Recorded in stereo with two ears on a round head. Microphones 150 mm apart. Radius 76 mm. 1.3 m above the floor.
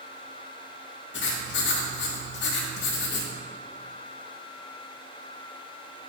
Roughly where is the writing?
Left.